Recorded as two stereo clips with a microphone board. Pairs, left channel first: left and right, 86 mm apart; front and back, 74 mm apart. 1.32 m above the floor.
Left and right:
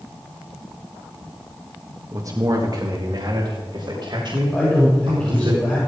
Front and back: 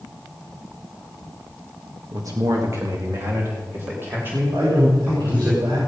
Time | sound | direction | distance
2.1 | a man speaking | 140° right | 1.7 m
4.5 | a man speaking | 170° left | 6.5 m